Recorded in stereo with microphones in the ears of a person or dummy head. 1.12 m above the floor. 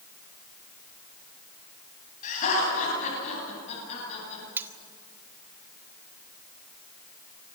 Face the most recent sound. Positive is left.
turn(degrees=-10)  # may be behind; listen again after turning